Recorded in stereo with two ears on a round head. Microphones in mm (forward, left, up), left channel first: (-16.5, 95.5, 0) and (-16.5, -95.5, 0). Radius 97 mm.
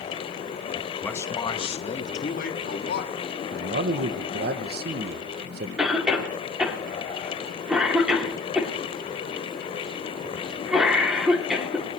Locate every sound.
1.0 s a man speaking: 5° left (ahead or behind), 0.8 m; by 3.1 s 45° left (ahead or behind), 1.8 m
3.5 s a man speaking: 45° right (ahead or behind), 0.7 m
5.8 s a cough: 5° right (ahead or behind), 2.5 m